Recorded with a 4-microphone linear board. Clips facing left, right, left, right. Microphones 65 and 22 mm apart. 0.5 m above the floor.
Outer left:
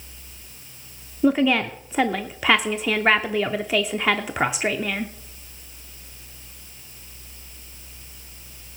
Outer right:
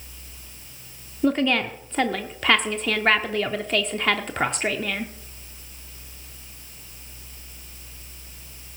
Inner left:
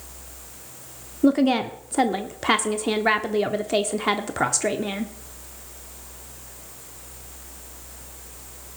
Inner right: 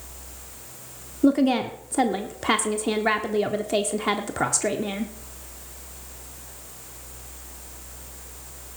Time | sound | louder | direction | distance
1.2 | a woman speaking | outer left 2 dB, inner left 1 dB | 10° left (ahead or behind) | 0.7 m